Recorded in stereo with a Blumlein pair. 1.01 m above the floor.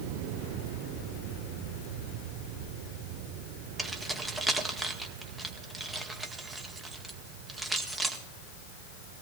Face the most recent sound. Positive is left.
turn(degrees=-10)